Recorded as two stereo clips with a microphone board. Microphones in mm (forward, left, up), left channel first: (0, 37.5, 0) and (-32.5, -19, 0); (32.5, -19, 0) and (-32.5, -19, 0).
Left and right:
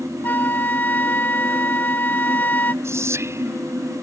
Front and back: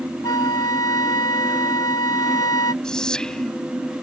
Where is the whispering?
80° right.